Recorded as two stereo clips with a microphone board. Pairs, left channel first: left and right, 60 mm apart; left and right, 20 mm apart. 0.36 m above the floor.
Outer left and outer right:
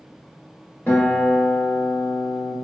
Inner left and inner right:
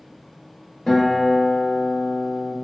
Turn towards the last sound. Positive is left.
turn(degrees=25)  # may be behind; listen again after turning